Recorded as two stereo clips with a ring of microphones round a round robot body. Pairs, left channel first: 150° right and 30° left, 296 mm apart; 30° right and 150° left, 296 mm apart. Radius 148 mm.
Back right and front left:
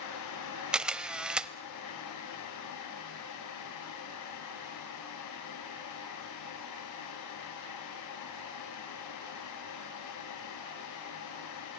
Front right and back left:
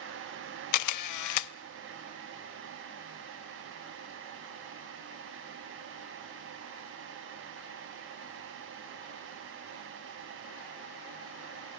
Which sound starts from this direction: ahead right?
A camera shutter, at 0.7 s.